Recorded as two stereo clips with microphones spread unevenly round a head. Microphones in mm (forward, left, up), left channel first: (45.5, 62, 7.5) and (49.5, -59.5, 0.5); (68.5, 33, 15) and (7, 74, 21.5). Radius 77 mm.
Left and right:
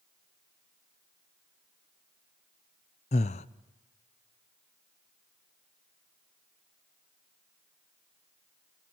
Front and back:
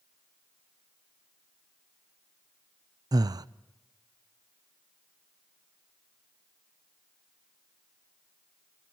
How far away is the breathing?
About 0.7 m.